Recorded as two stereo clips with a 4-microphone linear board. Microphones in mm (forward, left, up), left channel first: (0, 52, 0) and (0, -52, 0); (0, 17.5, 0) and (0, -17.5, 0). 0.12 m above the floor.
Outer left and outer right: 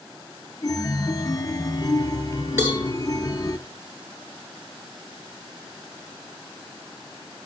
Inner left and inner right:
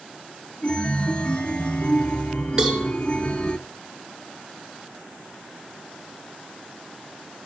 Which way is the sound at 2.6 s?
25° right (ahead or behind).